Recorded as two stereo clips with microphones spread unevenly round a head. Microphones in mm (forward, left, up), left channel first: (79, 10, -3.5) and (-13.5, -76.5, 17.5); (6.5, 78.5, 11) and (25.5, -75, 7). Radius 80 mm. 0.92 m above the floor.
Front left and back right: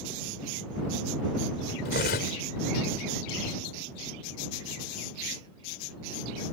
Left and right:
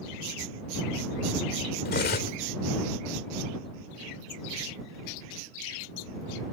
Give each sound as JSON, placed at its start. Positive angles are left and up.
{"t": 1.9, "sound": "cutlery clinking", "azimuth_deg": 70}